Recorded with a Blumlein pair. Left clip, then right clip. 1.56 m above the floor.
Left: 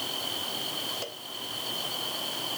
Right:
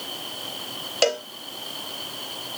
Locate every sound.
1.0 s a cowbell: 40° right